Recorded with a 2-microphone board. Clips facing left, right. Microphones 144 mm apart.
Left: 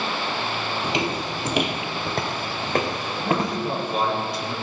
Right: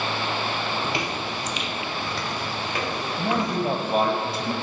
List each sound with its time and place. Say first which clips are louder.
0.8 s footsteps: left 3 dB; 15° left (ahead or behind), 0.7 m; by 3.6 s 45° left (ahead or behind), 2.5 m
3.2 s a man speaking: even; 60° right (ahead or behind), 1.6 m